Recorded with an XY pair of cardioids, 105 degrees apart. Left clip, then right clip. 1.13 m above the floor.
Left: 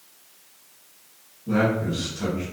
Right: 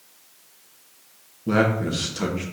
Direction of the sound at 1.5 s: 65° right.